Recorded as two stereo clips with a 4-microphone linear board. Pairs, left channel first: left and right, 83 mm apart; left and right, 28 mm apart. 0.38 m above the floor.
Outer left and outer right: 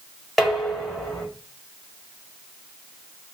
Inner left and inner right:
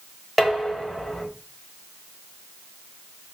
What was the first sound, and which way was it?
Dishes clattering, centre (ahead or behind).